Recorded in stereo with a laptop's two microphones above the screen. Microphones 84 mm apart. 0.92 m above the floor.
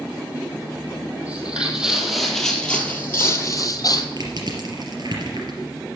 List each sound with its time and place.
1.2 s footsteps: 15° right (ahead or behind), 1.7 m; by 4.1 s 50° left (ahead or behind), 1.3 m
4.2 s crushing: 55° right (ahead or behind), 3.5 m